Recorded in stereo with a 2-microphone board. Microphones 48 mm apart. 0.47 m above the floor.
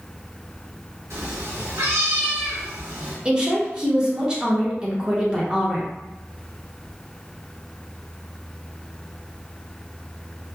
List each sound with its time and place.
1.1 s a cat meowing: 85° right, 1.3 m
3.2 s a woman speaking: 20° right (ahead or behind), 0.8 m